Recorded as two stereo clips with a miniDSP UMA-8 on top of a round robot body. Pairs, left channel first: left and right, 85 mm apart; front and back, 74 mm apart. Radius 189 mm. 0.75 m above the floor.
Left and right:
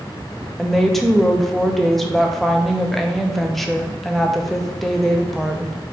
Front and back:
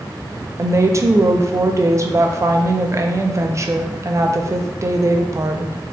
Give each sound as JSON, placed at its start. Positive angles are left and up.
{"t": 0.6, "sound": "a woman speaking", "azimuth_deg": 175, "distance_m": 0.6}